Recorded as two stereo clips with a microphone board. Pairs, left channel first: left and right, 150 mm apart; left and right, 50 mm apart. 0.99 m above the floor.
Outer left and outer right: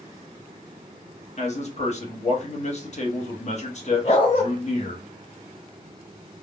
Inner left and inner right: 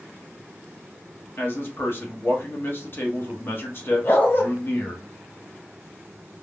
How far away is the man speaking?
About 0.9 m.